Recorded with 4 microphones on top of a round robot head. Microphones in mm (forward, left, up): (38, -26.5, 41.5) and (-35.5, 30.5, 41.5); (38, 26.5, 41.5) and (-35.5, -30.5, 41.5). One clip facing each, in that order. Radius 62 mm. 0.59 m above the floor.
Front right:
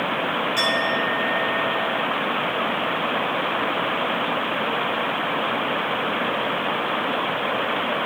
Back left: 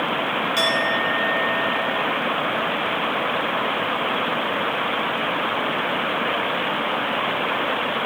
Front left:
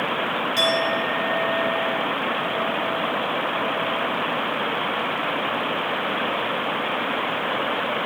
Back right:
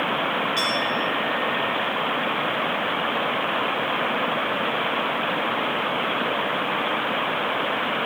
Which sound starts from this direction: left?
A clink, at 0.6 s.